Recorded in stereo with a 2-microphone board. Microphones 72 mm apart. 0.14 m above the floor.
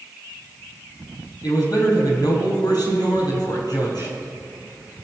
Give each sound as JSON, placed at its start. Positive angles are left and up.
{"t": 1.4, "sound": "a man speaking", "side_deg": 65, "distance_m": 4.5}